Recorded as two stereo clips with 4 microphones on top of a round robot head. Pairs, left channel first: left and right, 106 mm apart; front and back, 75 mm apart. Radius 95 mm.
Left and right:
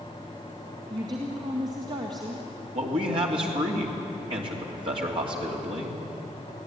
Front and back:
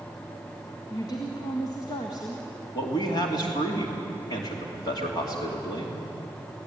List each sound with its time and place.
0.9 s a woman speaking: 40° right, 1.6 m
2.7 s a man speaking: 45° right, 3 m